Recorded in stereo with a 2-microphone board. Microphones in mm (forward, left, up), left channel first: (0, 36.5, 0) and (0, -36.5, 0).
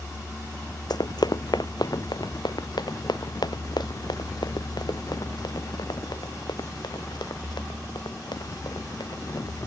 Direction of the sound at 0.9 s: 65° left (ahead or behind).